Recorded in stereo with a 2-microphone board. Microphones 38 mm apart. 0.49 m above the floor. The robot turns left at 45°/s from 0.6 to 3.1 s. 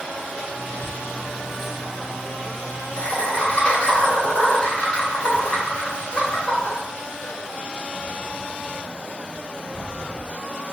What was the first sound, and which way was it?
Laughter, 10° right (ahead or behind).